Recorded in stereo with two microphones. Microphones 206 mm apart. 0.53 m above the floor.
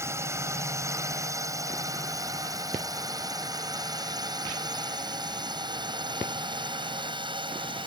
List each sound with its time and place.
0.0 s a drone: 15° right (ahead or behind); by 7.9 s 25° right (ahead or behind)